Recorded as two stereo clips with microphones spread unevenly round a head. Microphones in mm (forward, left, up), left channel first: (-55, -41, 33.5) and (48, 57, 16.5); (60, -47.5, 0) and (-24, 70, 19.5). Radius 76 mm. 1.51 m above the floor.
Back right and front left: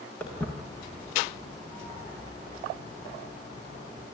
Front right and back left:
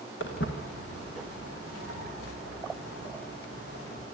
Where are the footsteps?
55° right, 5.5 m; by 4.0 s 80° right, 8 m.